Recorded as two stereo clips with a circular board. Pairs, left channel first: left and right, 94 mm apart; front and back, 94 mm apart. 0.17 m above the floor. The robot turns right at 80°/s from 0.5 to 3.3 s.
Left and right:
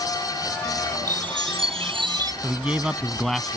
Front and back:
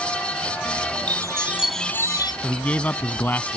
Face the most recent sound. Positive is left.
turn(degrees=10)